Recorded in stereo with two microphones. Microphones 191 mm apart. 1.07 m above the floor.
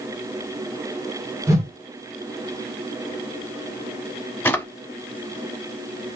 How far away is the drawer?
About 0.8 m.